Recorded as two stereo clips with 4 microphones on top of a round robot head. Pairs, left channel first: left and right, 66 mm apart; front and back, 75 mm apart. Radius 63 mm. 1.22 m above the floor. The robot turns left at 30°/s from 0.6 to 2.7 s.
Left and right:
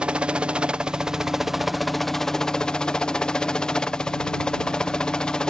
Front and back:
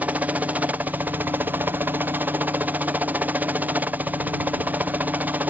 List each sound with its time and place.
0.0 s a helicopter: 140° right; by 5.5 s 155° left